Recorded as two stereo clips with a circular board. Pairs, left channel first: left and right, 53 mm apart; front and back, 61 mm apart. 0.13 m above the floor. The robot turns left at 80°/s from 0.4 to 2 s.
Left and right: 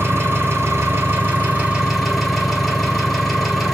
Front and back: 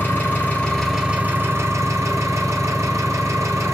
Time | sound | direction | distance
0.0 | an engine running | 50° right | 1.1 m